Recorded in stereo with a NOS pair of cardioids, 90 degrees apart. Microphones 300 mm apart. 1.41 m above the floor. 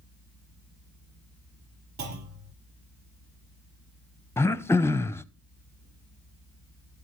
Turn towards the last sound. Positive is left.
turn(degrees=10)